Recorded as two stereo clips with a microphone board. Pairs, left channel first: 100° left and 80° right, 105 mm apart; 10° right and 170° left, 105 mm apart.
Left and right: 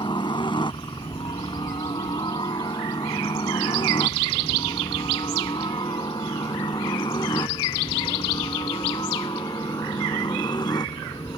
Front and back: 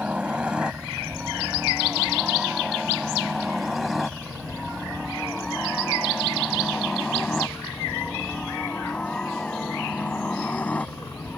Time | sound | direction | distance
0.0 | a helicopter | 95° left | ?